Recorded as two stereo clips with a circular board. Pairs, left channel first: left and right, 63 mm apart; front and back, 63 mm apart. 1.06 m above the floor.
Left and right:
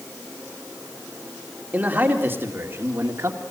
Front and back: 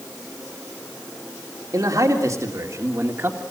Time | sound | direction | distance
1.7 | a man speaking | 155° right | 3 m